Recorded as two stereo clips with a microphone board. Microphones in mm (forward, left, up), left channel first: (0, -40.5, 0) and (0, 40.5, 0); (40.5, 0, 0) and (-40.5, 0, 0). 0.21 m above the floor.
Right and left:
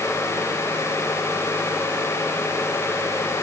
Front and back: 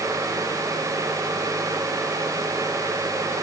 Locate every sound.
Only background noise.